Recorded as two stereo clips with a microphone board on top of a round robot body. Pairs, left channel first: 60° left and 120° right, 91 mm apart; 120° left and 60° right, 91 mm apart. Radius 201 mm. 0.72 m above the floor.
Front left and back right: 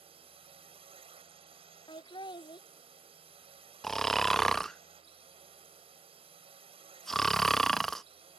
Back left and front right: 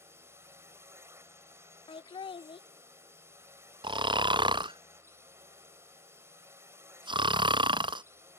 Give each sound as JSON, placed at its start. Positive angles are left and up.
{"t": 0.0, "sound": "a drone", "azimuth_deg": -120}
{"t": 1.9, "sound": "laughter", "azimuth_deg": 95}
{"t": 3.8, "sound": "snoring", "azimuth_deg": -25}